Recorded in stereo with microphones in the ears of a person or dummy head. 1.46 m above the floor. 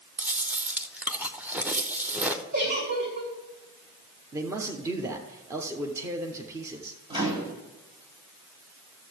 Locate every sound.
0.2 s chewing: 5° right (ahead or behind), 0.8 m
2.5 s a giggle: 50° right (ahead or behind), 1.8 m
4.3 s a man speaking: 15° right (ahead or behind), 0.8 m
7.1 s a microwave: 25° right (ahead or behind), 1.4 m